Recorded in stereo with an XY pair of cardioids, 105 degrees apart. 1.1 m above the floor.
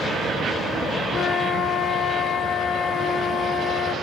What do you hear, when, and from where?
1.1 s a flute: 55° left, 1.7 m